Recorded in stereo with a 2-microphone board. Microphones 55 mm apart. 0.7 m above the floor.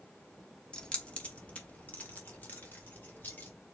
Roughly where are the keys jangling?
Centre.